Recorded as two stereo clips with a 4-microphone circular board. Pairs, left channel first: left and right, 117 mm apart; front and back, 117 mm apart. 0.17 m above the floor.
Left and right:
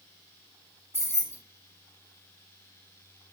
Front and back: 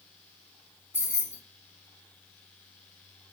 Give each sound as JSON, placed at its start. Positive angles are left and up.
{"t": 0.9, "sound": "keys jangling", "azimuth_deg": -130, "distance_m": 0.9}